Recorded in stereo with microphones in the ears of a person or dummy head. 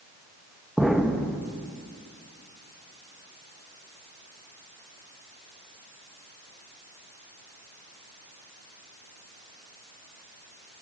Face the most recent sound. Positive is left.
turn(degrees=-5)  # may be behind; listen again after turning